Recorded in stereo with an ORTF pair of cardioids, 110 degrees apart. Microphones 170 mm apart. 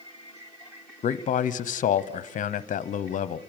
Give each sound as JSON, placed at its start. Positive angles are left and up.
{"t": 1.0, "sound": "a man speaking", "azimuth_deg": 50, "distance_m": 0.9}